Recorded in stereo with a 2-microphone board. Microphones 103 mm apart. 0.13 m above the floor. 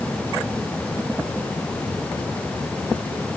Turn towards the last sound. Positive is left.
No sound to turn to.